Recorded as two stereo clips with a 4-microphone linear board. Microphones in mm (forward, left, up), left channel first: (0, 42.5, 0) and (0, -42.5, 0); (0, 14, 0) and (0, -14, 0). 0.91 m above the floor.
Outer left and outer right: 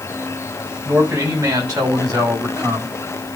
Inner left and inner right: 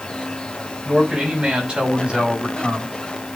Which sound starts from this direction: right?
A man speaking, at 0.8 s.